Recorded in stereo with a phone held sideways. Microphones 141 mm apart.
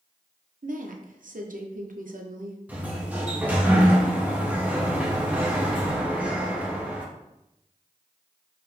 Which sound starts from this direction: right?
A woman speaking, at 0.6 s.